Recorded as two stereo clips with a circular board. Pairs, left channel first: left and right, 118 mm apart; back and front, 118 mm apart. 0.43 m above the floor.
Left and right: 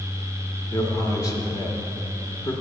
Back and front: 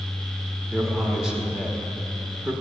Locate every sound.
0.7 s a man speaking: 80° left, 0.8 m